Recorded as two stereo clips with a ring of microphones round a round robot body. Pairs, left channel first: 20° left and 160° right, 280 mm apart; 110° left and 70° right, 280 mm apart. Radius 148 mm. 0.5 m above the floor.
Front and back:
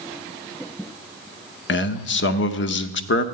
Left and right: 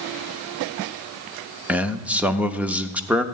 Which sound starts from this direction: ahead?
A man speaking, at 1.7 s.